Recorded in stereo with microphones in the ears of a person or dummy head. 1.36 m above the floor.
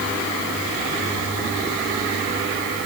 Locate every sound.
Only background noise.